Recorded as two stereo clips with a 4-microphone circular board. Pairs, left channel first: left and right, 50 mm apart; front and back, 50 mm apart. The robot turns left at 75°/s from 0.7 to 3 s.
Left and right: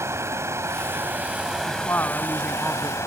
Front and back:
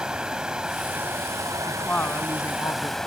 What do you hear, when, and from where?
0.0 s running water: 110° right; by 3.1 s 80° left
1.7 s a woman speaking: 70° left; by 3.0 s 25° right